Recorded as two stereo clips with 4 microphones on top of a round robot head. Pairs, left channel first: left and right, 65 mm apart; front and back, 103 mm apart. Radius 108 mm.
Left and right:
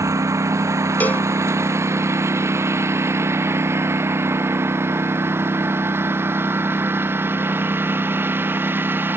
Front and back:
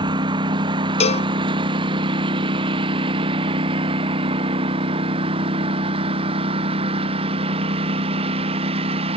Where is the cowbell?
20° left.